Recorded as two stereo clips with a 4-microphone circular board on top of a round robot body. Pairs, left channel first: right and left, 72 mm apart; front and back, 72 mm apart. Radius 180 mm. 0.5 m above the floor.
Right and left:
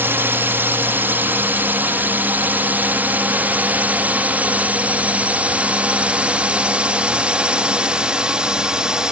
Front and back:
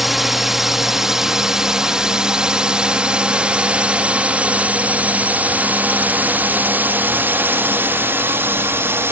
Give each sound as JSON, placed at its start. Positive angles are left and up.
{"t": 0.0, "sound": "a drone", "azimuth_deg": 95}